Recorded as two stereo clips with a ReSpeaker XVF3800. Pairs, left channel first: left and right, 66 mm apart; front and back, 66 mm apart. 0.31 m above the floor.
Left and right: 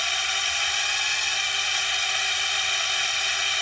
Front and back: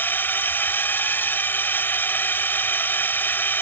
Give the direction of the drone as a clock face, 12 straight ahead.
12 o'clock.